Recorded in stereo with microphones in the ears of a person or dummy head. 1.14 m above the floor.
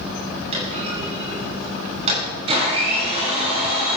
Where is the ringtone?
I don't hear a ringtone.